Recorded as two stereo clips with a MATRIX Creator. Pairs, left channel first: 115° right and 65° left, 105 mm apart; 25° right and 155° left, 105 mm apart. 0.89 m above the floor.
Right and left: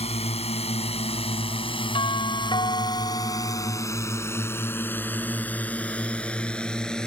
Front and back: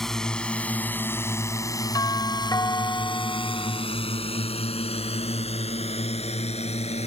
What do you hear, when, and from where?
0.0 s a drone: 110° right; by 7.1 s 30° right
1.9 s a doorbell: 75° right